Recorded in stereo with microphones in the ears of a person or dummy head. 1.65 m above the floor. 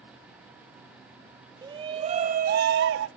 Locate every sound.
1.6 s a shout: 15° right (ahead or behind), 0.9 m; by 3.1 s 70° right (ahead or behind), 0.8 m